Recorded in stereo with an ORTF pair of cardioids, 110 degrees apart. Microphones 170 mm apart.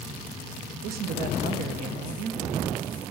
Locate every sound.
0.8 s a woman speaking: 65° right, 0.8 m